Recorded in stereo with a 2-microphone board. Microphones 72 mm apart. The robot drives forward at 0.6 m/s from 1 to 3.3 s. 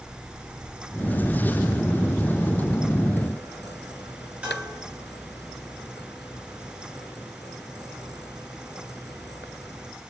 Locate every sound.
4.4 s dishes clattering: 20° right (ahead or behind), 5.5 m